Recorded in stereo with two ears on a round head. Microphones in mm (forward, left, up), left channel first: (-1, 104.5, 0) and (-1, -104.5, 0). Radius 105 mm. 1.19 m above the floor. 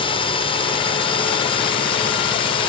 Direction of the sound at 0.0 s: 25° left (ahead or behind).